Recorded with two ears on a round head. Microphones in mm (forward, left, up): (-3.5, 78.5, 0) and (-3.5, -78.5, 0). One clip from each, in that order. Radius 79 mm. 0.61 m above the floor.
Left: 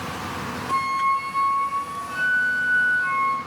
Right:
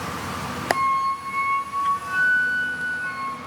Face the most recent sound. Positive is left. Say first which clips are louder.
# even
turn(degrees=50)  # may be behind; listen again after turning